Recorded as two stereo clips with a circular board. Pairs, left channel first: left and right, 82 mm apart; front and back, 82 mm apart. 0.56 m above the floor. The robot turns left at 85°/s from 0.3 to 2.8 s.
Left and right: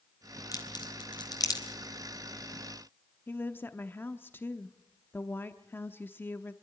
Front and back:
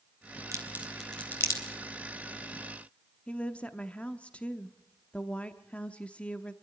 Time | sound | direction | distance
0.5 | a crack | 135° left | 3.5 m
3.3 | a woman speaking | 60° left | 0.9 m